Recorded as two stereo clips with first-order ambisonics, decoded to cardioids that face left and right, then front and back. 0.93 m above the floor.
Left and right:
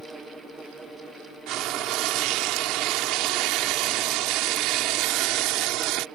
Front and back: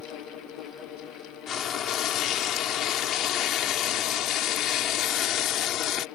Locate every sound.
1.5 s frying: 55° right